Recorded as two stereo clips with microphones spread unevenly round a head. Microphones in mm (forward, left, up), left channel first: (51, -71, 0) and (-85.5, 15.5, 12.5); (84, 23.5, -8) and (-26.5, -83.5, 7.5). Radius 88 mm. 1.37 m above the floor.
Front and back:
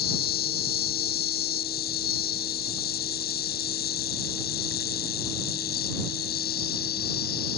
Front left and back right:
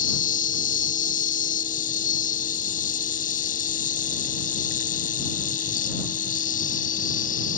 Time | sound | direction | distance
0.0 | an insect | 10° left | ?